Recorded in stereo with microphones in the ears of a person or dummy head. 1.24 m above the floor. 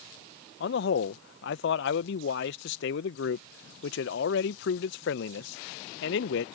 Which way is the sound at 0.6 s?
60° left (ahead or behind).